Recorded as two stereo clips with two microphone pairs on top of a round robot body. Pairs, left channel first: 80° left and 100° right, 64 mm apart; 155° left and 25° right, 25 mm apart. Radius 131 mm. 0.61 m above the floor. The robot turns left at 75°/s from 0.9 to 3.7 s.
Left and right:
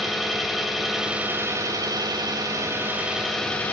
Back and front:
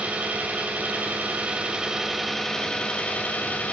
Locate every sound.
0.0 s an engine running: 10° right, 2.5 m; by 3.7 s 140° left, 2.5 m